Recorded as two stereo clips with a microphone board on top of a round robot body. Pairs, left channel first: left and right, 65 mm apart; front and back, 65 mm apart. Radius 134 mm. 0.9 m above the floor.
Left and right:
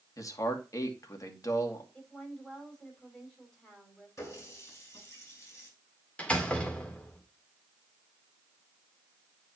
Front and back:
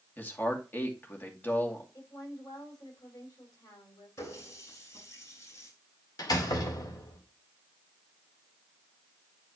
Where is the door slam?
20° left, 2 m.